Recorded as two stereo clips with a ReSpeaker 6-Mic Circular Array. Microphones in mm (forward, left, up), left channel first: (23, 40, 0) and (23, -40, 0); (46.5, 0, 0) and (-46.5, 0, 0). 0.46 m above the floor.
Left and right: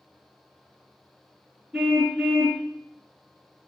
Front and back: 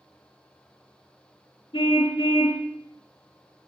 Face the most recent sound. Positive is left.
turn(degrees=10)